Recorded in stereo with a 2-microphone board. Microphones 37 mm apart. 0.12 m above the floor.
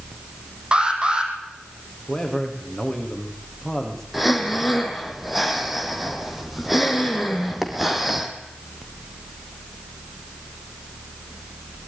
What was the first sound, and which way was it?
An alarm, 30° right (ahead or behind).